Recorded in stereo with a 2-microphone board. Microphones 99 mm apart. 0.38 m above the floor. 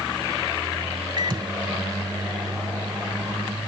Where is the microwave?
45° right (ahead or behind).